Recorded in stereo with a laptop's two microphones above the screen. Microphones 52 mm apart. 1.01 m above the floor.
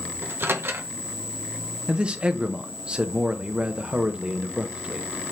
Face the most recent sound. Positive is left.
turn(degrees=-20)  # may be behind; listen again after turning